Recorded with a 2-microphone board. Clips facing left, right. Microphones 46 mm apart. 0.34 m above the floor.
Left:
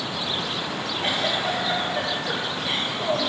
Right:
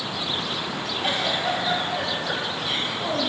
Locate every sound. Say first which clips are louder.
1.0 s a giggle: even; 50° left (ahead or behind), 3.5 m